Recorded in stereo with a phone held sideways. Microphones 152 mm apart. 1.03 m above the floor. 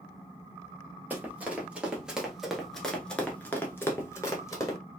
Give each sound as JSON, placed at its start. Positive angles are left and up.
{"t": 1.1, "sound": "running footsteps", "side_deg": -10, "distance_m": 1.6}